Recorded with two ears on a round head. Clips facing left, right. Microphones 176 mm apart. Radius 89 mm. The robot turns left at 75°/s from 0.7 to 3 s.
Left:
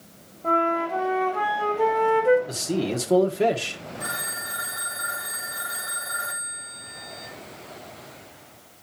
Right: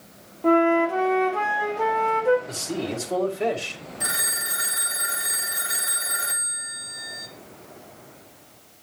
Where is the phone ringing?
25° right (ahead or behind), 0.8 m.